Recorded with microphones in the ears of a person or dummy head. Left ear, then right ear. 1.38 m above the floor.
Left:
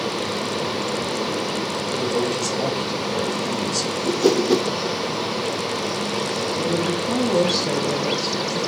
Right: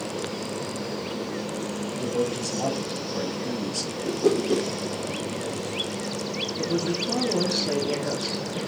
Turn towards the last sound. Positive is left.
turn(degrees=55)  # may be behind; listen again after turning